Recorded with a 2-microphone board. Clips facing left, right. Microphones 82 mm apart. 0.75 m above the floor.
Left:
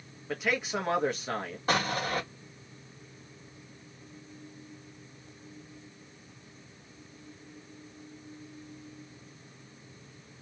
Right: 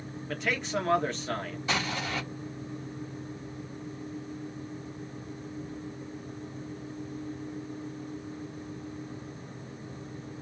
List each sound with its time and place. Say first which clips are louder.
0.3 s a man speaking: even; 10° left (ahead or behind), 1.2 m
1.7 s an explosion: left 3 dB; 45° left (ahead or behind), 1.6 m